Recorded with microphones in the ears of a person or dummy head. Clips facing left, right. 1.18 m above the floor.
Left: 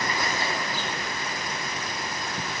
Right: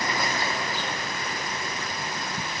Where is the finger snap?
I don't hear a finger snap.